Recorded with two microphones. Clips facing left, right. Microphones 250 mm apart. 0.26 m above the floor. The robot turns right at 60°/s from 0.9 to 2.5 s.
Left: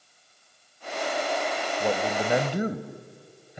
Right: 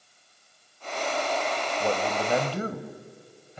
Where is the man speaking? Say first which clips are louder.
Left 1 dB; 5° left (ahead or behind), 0.9 m; by 3.6 s 15° left (ahead or behind), 0.9 m.